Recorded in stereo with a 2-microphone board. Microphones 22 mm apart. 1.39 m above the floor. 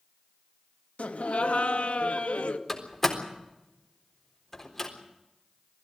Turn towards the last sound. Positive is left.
turn(degrees=15)  # may be behind; listen again after turning